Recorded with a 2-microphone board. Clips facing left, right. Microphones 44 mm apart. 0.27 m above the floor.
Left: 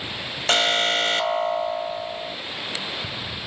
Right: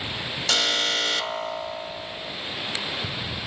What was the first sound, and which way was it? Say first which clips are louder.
An alarm: left 4 dB; 35° left (ahead or behind).